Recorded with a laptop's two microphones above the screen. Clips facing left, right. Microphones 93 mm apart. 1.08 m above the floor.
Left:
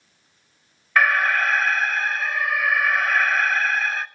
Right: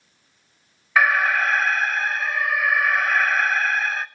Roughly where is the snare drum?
I don't hear a snare drum.